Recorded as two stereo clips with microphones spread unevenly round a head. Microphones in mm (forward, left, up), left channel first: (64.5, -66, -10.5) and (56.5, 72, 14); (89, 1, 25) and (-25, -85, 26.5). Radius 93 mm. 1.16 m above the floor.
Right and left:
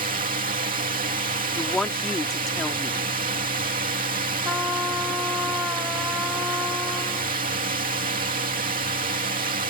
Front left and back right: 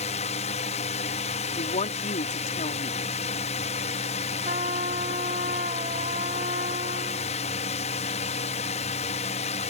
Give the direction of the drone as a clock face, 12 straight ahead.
9 o'clock.